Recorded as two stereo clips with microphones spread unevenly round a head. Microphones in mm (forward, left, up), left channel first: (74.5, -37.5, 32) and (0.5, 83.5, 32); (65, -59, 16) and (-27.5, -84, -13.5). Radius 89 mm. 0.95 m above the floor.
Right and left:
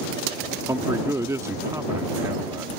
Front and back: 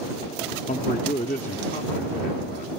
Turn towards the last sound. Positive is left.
turn(degrees=50)